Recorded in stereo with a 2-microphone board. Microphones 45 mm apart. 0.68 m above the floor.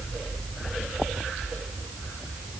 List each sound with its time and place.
Only background noise.